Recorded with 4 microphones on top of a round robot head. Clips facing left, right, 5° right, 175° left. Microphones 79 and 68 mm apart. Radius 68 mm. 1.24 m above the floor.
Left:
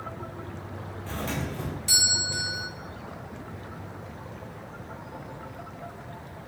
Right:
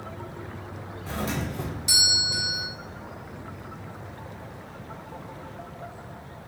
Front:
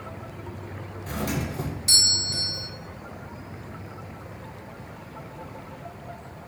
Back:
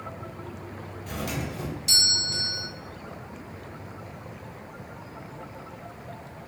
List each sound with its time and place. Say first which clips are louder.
1.1 s a doorbell: right 2 dB, front 3 dB; 25° right, 0.8 m